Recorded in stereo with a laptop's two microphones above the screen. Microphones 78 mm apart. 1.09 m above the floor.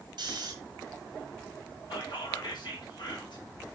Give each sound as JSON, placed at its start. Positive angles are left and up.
{"t": 0.2, "sound": "snoring", "side_deg": -65, "distance_m": 1.7}
{"t": 1.9, "sound": "whispering", "side_deg": 80, "distance_m": 1.7}